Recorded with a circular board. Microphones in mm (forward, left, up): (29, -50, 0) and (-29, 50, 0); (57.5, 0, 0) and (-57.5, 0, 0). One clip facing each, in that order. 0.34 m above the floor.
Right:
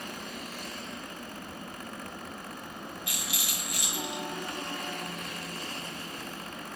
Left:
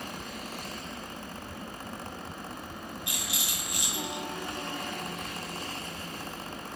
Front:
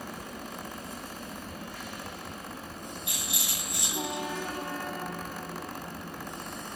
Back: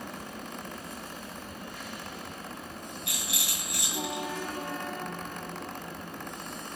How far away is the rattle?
About 2 m.